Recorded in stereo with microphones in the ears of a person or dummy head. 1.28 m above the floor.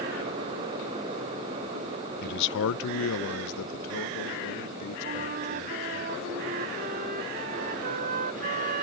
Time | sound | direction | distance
2.2 | a man speaking | 50° left (ahead or behind) | ?
5.0 | a flute | 45° right (ahead or behind) | ?